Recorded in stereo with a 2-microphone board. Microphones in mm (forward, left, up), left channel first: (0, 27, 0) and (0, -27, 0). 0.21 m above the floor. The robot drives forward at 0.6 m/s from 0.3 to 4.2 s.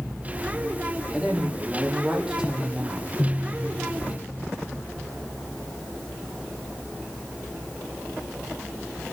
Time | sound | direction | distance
1.1 | a woman speaking | 15° right (ahead or behind) | 6.5 m